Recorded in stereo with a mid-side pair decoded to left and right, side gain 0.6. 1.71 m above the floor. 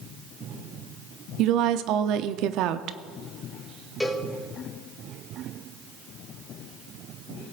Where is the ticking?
I don't hear ticking.